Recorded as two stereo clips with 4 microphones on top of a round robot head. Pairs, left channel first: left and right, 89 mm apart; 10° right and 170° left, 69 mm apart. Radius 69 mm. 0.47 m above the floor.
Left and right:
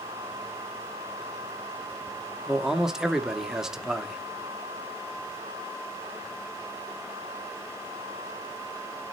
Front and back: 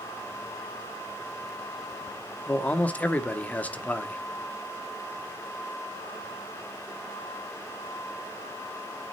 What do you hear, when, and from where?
2.5 s a man speaking: 15° right, 0.8 m